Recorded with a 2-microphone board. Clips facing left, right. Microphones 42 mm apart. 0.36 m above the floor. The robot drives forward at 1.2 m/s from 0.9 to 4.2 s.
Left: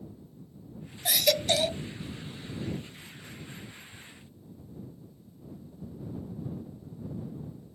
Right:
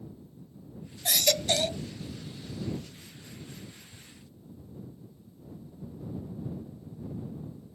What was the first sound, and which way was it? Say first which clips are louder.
A baby crying: left 1 dB; 10° left (ahead or behind).